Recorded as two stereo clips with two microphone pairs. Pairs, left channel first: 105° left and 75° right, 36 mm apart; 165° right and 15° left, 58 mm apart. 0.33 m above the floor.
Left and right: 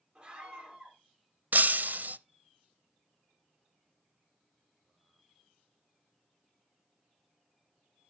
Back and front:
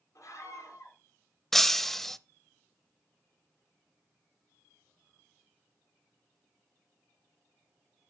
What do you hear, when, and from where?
0.1 s a scream: 145° right, 4.5 m
1.5 s breaking glass: 85° right, 0.6 m